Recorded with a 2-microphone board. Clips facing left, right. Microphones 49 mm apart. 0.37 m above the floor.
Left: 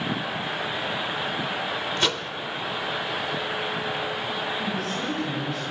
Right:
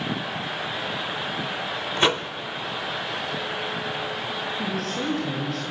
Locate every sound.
2.0 s a microwave: 25° right (ahead or behind), 0.6 m
4.6 s a woman speaking: 55° right (ahead or behind), 9.5 m